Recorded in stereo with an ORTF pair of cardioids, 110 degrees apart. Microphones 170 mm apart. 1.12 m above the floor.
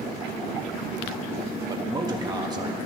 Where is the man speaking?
25° right, 1.3 m.